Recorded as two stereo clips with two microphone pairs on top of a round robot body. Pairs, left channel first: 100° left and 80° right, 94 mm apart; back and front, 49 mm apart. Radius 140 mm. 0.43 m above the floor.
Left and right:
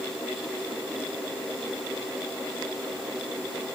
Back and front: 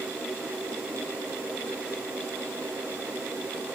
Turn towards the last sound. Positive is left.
No sound to turn to.